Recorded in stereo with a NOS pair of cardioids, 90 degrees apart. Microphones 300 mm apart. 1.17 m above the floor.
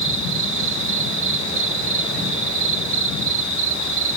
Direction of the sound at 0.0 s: 50° right.